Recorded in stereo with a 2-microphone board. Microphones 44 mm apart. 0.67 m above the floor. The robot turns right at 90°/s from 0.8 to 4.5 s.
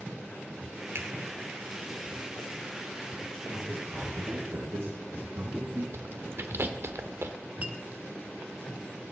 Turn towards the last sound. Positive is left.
turn(degrees=-30)  # may be behind; listen again after turning